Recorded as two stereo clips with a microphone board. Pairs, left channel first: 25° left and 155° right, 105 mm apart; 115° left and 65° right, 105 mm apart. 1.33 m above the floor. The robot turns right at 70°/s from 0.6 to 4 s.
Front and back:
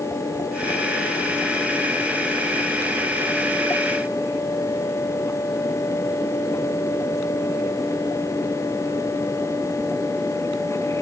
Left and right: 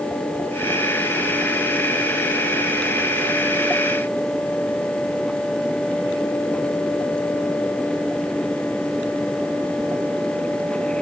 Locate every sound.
Only background noise.